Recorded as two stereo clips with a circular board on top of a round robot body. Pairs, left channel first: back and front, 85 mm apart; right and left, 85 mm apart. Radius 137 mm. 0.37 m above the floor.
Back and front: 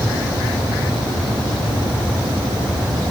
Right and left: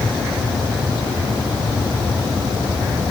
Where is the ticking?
I don't hear ticking.